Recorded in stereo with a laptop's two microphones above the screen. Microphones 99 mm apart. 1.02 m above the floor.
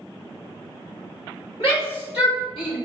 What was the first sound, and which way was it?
A shout, 70° left (ahead or behind).